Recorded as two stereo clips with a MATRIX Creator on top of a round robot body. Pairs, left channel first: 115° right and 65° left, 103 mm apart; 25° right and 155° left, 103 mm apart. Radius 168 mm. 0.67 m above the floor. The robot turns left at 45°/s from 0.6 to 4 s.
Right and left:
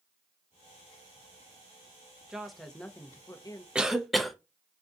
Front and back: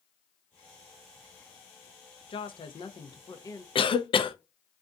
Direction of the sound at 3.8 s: 10° right.